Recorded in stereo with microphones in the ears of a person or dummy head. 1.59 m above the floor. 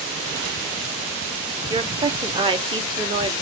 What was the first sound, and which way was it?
A woman speaking, 25° right (ahead or behind).